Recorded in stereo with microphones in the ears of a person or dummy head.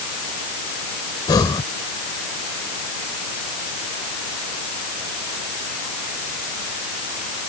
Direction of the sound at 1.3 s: 25° left (ahead or behind).